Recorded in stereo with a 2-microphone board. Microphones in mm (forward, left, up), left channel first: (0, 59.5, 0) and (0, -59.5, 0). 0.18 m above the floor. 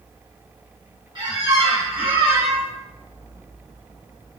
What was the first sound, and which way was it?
A squeak, 45° right (ahead or behind).